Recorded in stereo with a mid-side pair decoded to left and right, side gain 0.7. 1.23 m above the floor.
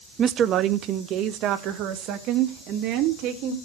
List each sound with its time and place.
0.2 s a woman speaking: 35° right, 0.6 m; by 3.5 s 65° right, 2.5 m